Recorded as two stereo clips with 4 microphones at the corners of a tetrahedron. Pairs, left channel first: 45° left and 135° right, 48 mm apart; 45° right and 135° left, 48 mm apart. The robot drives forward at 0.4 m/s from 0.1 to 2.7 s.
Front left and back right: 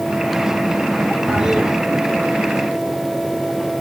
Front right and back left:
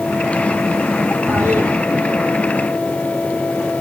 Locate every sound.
1.3 s a toilet flushing: 150° left, 5 m